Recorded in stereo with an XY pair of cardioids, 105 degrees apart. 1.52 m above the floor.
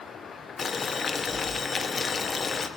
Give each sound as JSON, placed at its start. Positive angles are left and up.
{"t": 0.6, "sound": "boiling", "azimuth_deg": 30, "distance_m": 0.9}